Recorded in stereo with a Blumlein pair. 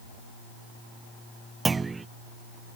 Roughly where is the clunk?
Ahead.